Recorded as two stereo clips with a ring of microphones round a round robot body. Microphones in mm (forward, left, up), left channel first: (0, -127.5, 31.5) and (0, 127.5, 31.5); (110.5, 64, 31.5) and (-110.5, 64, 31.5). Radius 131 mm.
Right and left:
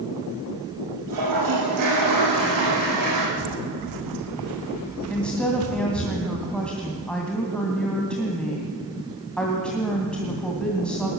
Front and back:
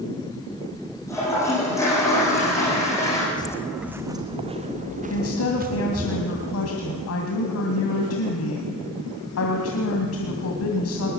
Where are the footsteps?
70° left, 1.2 m; by 6.1 s 130° left, 4 m.